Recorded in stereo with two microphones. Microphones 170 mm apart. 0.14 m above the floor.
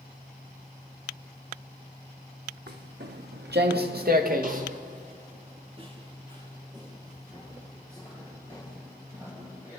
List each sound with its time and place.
2.7 s footsteps: 80° right, 2.5 m; by 9.8 s 10° right (ahead or behind), 8 m